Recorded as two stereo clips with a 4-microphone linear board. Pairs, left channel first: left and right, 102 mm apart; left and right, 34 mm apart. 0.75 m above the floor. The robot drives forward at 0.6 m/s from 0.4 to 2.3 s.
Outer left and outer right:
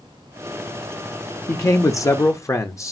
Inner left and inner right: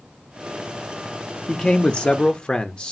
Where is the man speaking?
30° left (ahead or behind), 0.6 m.